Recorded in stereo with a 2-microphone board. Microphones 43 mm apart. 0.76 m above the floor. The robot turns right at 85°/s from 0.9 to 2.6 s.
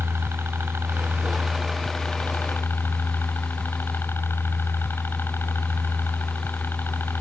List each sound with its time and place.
0.0 s a helicopter: 75° right; by 7.2 s 65° left